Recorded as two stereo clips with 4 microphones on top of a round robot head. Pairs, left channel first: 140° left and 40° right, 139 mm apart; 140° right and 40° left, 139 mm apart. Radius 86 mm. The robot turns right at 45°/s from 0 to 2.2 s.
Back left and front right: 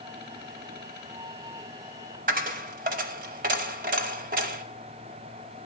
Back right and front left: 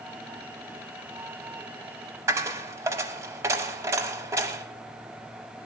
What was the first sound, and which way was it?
A dropped coin, 25° right.